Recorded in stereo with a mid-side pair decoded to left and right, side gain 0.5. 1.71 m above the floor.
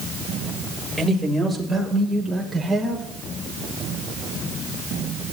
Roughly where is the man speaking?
Ahead.